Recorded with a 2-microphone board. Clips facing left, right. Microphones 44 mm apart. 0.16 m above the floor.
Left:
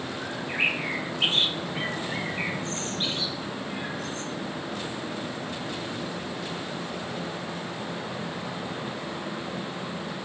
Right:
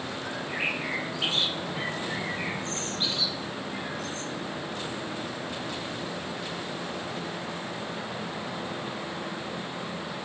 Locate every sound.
0.2 s a bird: 40° left (ahead or behind), 0.9 m